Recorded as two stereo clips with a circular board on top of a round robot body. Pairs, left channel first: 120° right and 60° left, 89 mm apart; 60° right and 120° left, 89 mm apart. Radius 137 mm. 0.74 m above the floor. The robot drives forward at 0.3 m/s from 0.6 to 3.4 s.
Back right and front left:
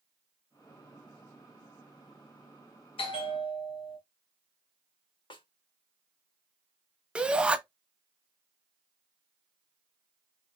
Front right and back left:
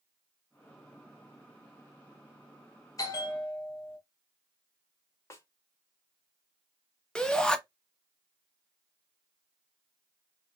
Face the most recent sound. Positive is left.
turn(degrees=5)